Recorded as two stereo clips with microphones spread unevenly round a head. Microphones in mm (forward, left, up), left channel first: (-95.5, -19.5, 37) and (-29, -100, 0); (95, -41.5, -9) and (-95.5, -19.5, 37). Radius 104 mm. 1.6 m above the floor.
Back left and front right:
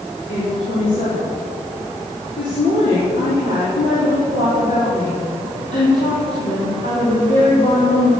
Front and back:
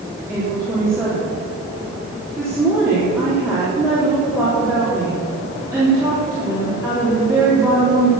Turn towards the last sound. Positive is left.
turn(degrees=95)